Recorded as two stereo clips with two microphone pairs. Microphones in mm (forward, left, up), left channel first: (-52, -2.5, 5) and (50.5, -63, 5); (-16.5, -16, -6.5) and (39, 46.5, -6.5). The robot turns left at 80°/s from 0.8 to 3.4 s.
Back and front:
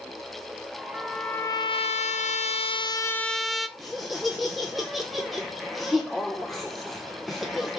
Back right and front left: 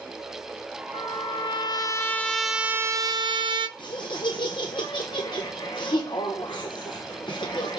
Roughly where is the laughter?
Behind right.